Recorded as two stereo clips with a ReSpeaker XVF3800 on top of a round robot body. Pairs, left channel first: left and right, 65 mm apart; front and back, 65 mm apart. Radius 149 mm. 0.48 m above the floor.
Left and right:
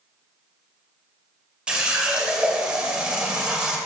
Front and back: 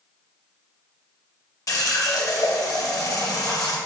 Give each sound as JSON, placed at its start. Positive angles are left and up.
{"t": 1.7, "sound": "a running tap", "azimuth_deg": -15, "distance_m": 0.9}